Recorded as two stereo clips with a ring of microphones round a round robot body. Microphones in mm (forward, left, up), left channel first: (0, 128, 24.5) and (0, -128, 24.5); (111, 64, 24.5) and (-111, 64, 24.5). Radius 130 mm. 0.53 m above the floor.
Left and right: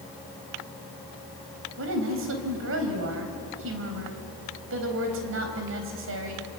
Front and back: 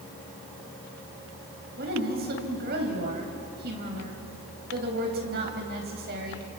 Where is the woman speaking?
130° right, 4 m.